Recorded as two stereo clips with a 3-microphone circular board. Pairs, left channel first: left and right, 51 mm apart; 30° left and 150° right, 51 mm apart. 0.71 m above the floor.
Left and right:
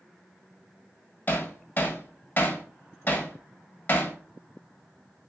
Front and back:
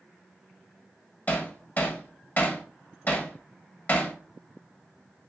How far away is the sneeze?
No sneeze in this recording.